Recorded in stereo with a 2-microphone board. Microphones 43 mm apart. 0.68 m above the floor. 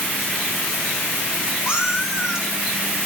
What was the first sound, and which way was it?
A cat meowing, 15° right (ahead or behind).